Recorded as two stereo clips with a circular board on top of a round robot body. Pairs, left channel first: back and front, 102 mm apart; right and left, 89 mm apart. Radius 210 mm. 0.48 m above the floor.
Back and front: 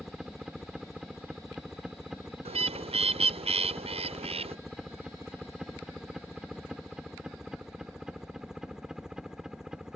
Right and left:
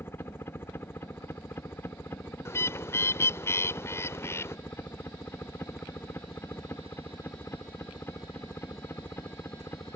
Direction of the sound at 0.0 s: 80° right.